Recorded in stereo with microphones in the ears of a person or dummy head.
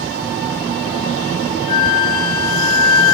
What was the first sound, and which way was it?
A flute, 30° left (ahead or behind).